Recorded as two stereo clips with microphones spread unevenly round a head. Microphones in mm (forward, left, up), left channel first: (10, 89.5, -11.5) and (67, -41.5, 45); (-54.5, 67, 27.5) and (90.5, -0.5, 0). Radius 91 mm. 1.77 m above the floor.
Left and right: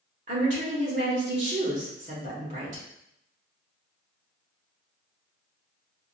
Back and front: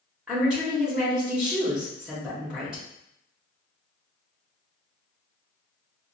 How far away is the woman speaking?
About 1.0 m.